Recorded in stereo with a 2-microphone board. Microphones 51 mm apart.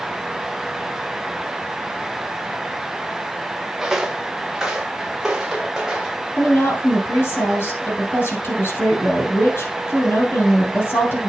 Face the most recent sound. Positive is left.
turn(degrees=45)  # may be behind; listen again after turning